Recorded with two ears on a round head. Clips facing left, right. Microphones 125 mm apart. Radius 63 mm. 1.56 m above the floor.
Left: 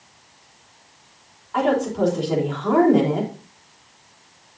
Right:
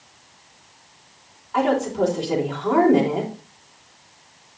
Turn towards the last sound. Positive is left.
turn(degrees=0)  # may be behind; listen again after turning